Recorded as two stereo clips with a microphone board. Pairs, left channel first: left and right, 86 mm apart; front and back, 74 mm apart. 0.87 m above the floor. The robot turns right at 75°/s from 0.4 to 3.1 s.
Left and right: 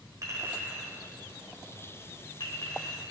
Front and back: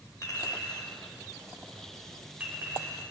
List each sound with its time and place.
0.2 s a clink: 40° right, 2.0 m; by 3.0 s 155° left, 2.0 m